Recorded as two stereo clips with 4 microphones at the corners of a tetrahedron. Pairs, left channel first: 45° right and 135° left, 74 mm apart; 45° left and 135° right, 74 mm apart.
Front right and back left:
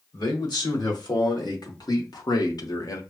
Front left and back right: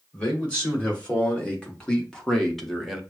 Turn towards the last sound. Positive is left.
turn(degrees=-50)